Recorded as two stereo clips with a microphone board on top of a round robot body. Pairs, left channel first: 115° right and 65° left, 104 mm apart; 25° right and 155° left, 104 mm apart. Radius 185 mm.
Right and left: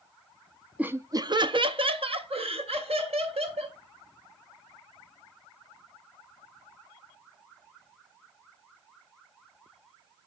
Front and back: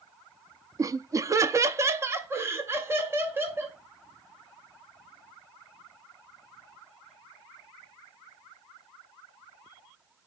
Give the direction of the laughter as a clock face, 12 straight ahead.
7 o'clock.